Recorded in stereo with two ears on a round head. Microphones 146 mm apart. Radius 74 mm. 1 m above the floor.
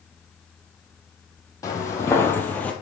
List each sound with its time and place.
1.6 s footsteps: 20° left (ahead or behind), 1.9 m; by 2.7 s 10° left (ahead or behind), 1.3 m